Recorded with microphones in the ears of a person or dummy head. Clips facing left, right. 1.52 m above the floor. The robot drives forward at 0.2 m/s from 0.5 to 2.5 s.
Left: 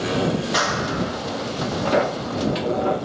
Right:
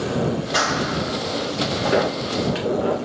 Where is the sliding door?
20° right (ahead or behind), 0.9 m.